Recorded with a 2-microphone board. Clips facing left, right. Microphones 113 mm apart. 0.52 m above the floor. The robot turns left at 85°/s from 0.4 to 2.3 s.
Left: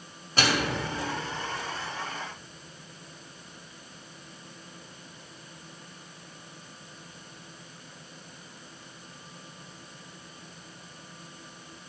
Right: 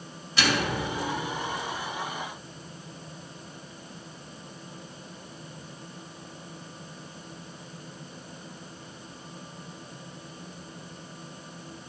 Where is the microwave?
50° left, 2 m; by 0.8 s 15° left, 2 m.